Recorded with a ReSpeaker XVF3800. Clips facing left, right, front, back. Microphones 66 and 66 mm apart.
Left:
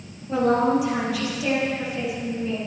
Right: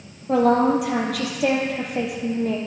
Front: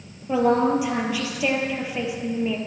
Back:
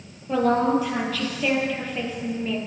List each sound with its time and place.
0.3 s a woman speaking: 75° right, 2.5 m